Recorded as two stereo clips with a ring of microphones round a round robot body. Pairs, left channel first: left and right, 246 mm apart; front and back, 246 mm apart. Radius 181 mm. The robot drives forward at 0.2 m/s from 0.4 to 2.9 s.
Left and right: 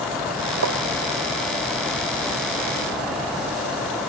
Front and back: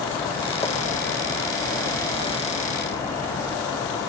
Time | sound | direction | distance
0.6 | tapping | 80° right | ?